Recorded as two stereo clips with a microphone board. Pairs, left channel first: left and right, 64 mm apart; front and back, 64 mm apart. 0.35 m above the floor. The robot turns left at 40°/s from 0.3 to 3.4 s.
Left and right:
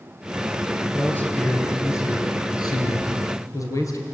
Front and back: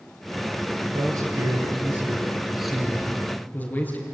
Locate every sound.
0.9 s a man speaking: 160° left, 6 m; by 4.0 s 60° left, 6 m